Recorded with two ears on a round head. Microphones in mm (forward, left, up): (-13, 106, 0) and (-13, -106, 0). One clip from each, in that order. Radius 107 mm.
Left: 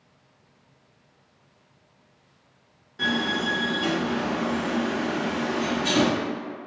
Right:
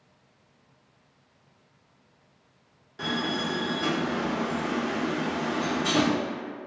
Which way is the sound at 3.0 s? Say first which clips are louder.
Left 4 dB; 15° right (ahead or behind).